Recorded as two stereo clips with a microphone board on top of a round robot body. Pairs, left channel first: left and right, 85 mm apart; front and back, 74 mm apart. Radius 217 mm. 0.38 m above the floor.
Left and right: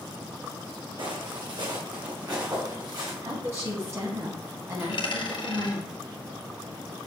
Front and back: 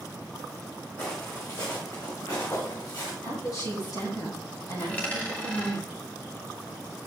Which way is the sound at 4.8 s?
70° left.